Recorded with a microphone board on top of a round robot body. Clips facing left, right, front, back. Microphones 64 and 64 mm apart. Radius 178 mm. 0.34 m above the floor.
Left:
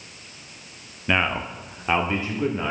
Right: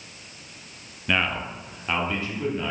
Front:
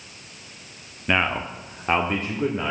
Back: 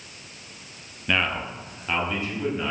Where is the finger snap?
I don't hear a finger snap.